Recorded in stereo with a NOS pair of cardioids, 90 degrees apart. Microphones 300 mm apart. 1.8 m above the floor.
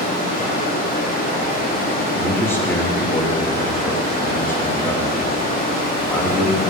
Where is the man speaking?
10° left, 2.5 m.